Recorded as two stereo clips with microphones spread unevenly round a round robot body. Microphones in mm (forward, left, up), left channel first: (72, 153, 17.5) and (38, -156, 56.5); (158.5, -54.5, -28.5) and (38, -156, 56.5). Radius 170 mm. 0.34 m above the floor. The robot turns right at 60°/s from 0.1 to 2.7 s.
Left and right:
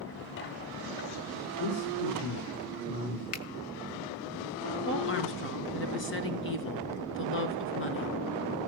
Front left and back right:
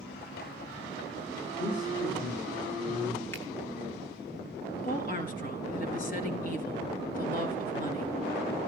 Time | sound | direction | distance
1.6 | a man speaking | 65° left | 5 m
3.3 | a finger snap | 90° left | 1.7 m
4.8 | a woman speaking | 35° left | 4.5 m